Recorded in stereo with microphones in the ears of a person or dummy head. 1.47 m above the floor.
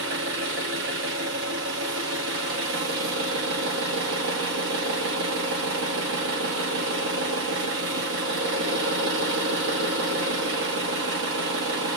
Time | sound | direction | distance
0.0 | an engine running | 55° right (ahead or behind) | 0.9 m